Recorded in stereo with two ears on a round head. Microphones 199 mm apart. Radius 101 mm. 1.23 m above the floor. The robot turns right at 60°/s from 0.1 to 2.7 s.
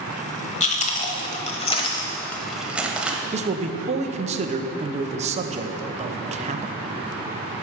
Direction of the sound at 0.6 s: 30° left (ahead or behind).